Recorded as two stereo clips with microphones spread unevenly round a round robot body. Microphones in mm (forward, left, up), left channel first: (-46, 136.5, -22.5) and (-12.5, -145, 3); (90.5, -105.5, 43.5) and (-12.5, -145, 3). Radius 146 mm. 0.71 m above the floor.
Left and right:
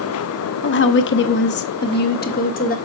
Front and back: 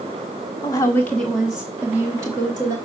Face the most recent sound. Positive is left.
turn(degrees=155)